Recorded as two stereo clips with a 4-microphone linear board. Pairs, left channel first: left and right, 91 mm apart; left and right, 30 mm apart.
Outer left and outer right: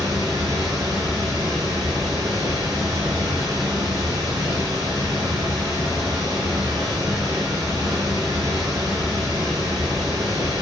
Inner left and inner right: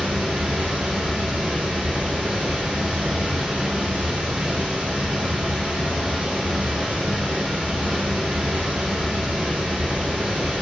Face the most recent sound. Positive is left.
turn(degrees=-45)  # may be behind; listen again after turning